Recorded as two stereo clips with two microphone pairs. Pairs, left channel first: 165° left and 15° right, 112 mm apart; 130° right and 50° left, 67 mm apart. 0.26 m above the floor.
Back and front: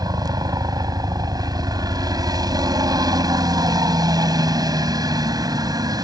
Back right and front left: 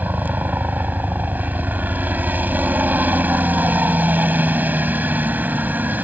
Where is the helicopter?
5° left.